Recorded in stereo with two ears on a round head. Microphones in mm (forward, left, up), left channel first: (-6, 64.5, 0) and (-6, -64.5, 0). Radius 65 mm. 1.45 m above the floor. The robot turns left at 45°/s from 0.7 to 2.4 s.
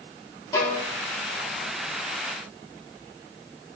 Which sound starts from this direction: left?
A violin, at 0.5 s.